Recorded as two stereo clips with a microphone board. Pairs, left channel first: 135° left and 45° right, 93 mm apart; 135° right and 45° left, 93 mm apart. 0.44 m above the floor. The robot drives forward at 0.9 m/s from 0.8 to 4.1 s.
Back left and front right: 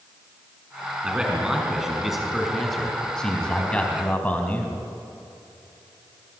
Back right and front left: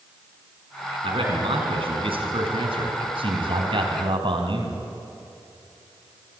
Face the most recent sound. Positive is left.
turn(degrees=60)